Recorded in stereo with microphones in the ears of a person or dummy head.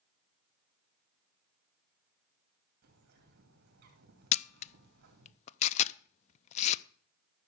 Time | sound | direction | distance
2.8 | a bird | 60° right (ahead or behind) | 2.5 m
4.3 | a camera shutter | 40° left (ahead or behind) | 0.5 m